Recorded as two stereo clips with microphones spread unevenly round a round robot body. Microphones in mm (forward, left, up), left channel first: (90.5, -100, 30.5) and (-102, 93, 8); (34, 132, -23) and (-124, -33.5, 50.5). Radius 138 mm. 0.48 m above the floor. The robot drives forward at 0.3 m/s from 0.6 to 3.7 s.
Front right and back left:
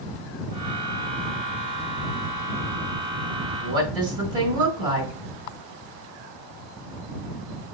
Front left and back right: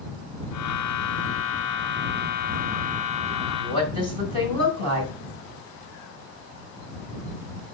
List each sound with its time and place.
3.6 s a woman speaking: 150° right, 3.5 m